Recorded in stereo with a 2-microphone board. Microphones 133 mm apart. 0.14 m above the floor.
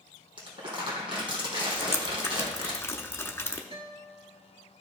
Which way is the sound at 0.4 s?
40° right (ahead or behind).